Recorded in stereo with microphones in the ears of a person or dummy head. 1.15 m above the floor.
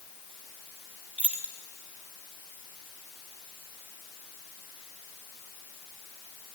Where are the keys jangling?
10° right (ahead or behind), 0.9 m.